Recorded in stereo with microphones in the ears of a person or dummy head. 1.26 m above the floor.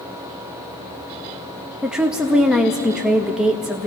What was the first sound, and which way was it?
A woman speaking, centre (ahead or behind).